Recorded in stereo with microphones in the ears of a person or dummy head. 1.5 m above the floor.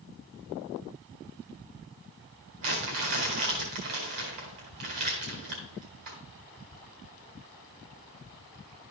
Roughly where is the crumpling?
Right.